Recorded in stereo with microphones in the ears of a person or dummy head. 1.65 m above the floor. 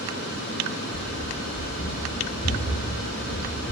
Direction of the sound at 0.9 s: 60° left (ahead or behind).